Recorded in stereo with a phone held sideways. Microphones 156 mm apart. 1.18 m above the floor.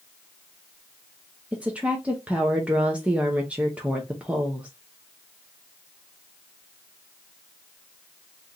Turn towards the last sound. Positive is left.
turn(degrees=-10)  # may be behind; listen again after turning